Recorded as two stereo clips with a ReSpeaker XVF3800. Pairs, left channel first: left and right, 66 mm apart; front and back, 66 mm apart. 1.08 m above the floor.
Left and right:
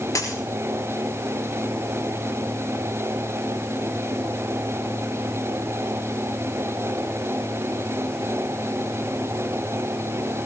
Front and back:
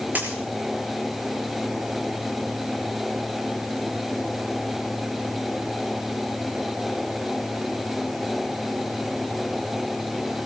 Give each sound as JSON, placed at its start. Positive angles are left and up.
{"t": 0.1, "sound": "a dropped coin", "azimuth_deg": 120, "distance_m": 6.0}